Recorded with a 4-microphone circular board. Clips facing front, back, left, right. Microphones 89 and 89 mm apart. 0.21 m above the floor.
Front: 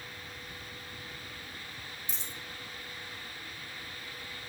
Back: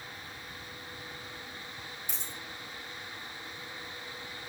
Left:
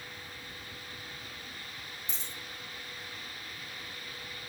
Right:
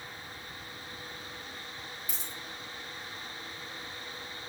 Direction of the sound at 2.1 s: 150° left.